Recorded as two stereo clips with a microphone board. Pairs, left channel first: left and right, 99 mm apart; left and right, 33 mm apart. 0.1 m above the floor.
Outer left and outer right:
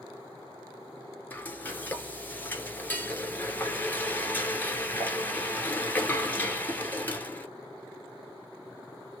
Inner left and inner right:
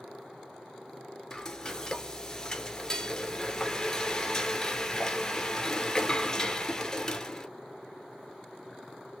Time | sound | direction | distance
1.3 | frying | 20° left (ahead or behind) | 0.7 m